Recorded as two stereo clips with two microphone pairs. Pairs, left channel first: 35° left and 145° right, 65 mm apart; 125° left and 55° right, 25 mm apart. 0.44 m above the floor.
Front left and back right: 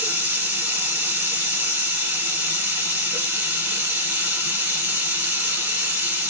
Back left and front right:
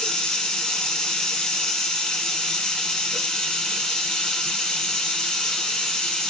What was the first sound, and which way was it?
Running water, 170° left.